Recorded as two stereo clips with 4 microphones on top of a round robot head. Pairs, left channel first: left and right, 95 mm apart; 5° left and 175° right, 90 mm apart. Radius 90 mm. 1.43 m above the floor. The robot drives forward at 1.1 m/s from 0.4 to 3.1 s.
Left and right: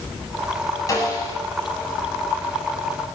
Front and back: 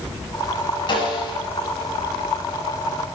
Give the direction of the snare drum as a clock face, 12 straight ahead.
11 o'clock.